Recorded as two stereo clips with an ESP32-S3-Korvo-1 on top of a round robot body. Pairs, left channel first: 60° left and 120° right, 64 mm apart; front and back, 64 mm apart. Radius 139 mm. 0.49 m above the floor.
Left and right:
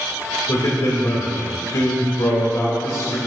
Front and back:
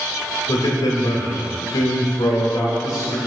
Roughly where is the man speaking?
Ahead.